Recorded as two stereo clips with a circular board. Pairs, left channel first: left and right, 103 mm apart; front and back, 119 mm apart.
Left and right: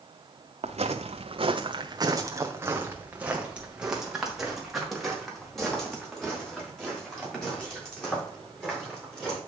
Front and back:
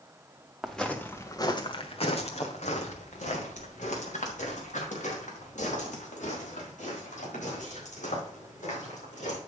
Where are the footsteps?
90° right, 1.6 m; by 9.4 s 10° left, 9.5 m.